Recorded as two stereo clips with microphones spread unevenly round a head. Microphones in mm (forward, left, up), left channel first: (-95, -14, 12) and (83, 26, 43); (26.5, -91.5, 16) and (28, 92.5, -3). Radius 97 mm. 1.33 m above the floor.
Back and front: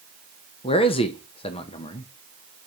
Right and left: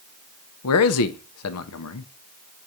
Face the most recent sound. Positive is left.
turn(degrees=-100)